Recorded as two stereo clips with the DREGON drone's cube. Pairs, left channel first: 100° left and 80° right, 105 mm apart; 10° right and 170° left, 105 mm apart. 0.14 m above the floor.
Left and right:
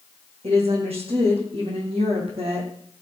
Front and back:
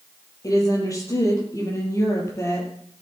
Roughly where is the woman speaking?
Ahead right.